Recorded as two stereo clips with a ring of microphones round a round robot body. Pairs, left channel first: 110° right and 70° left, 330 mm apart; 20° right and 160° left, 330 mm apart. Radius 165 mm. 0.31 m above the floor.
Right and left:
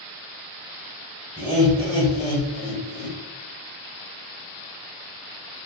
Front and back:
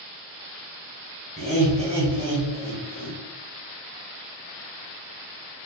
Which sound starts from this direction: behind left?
Laughter, at 1.4 s.